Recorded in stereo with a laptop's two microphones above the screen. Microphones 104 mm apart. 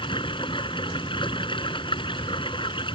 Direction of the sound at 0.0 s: 55° left (ahead or behind).